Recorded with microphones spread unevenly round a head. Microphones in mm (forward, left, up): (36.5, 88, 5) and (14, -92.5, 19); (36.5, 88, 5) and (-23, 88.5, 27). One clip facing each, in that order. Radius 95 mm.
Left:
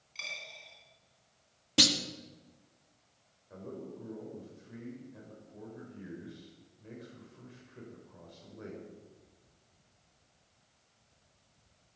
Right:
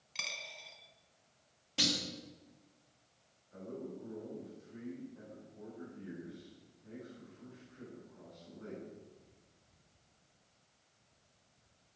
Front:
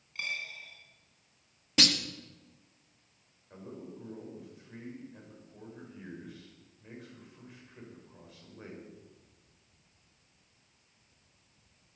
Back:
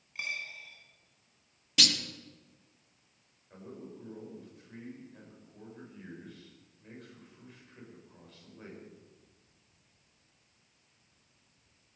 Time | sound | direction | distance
0.1 | a dropped coin | 110° right | 2.5 m
1.8 | a clunk | 60° left | 1.5 m
3.5 | a man speaking | 80° left | 6.5 m